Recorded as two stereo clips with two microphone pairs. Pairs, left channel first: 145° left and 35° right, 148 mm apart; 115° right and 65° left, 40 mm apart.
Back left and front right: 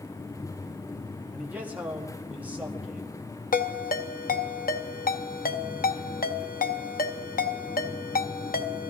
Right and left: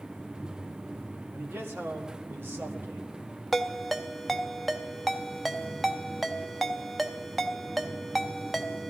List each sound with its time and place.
1.3 s a man speaking: 45° left, 1.8 m
3.5 s a ringtone: 160° left, 0.7 m